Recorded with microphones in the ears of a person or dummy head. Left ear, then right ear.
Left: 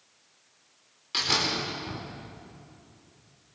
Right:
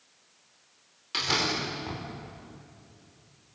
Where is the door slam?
5° right (ahead or behind), 4.5 m.